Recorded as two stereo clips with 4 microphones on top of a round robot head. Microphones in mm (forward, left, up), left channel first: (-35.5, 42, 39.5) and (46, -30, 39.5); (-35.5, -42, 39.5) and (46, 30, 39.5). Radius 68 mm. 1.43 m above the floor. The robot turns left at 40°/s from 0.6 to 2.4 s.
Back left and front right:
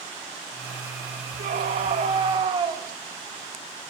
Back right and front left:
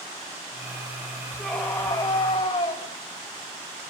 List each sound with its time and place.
1.4 s a scream: 55° right, 3 m; by 2.8 s 95° right, 3 m